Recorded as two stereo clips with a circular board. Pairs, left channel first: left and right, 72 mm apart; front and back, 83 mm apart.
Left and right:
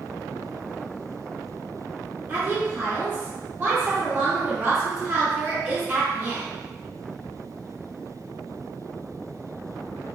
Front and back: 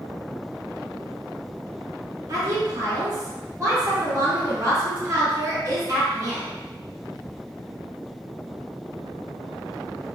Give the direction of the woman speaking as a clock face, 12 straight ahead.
5 o'clock.